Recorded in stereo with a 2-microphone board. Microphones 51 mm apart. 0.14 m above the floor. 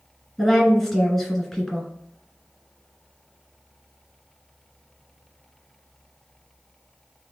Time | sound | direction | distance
0.4 | a woman speaking | centre (ahead or behind) | 1.5 m